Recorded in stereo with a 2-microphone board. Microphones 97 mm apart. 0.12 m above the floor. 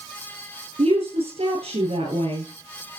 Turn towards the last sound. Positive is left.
turn(degrees=-75)  # may be behind; listen again after turning